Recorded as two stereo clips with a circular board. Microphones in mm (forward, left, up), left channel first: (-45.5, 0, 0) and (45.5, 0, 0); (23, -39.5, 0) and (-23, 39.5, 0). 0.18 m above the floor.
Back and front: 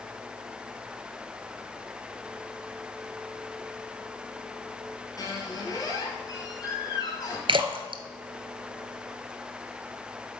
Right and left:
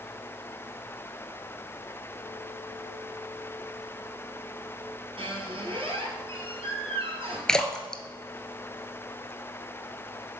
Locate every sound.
5.2 s a squeak: 135° left, 1.4 m
7.5 s a splash: 25° left, 0.6 m